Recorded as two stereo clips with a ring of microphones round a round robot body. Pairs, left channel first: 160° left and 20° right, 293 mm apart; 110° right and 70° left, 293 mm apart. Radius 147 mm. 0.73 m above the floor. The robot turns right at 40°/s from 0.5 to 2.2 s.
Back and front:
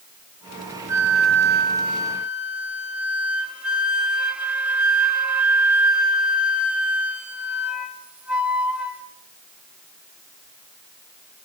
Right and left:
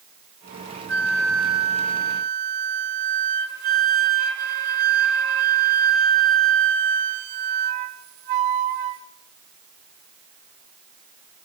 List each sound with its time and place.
0.9 s a flute: 10° left, 1.9 m; by 9.0 s 65° left, 1.9 m